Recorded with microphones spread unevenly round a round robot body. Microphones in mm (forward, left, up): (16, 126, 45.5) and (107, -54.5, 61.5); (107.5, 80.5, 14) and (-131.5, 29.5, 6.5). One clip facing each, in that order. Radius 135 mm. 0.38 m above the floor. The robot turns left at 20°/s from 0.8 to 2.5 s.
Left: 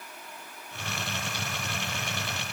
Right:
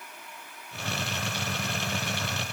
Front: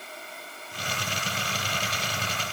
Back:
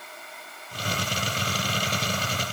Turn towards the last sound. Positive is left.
No sound to turn to.